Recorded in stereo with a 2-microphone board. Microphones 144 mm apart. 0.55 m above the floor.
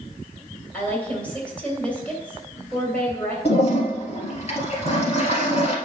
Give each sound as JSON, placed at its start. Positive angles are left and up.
{"t": 0.7, "sound": "a woman speaking", "side_deg": 10, "distance_m": 3.0}
{"t": 3.5, "sound": "a toilet flushing", "side_deg": 45, "distance_m": 1.8}